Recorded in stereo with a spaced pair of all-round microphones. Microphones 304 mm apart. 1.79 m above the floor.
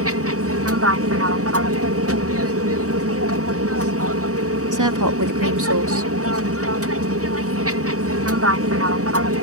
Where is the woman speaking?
80° right.